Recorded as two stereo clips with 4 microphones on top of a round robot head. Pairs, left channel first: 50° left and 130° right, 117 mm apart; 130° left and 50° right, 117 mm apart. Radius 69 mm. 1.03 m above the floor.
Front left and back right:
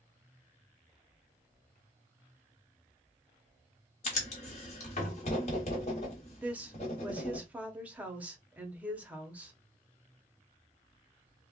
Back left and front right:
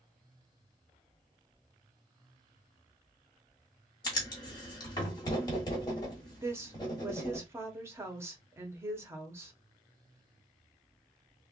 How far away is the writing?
About 1.0 m.